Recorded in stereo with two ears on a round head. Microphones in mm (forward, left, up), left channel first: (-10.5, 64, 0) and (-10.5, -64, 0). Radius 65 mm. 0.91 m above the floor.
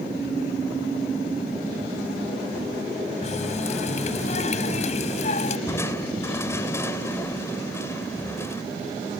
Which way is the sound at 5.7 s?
20° left (ahead or behind).